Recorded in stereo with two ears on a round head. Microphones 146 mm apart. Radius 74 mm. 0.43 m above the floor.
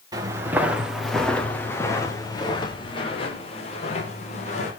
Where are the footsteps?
25° right (ahead or behind), 2.5 m; by 4.7 s 45° left (ahead or behind), 5 m.